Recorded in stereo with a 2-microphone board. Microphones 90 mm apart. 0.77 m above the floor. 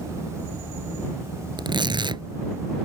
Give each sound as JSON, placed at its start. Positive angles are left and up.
{"t": 1.6, "sound": "tearing paper", "side_deg": -60}